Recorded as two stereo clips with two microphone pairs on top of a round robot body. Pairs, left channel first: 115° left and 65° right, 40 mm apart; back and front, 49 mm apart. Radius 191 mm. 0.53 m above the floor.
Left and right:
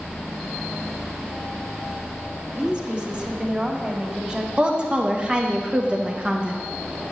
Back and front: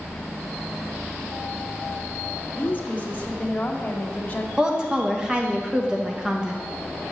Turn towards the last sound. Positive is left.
turn(degrees=-60)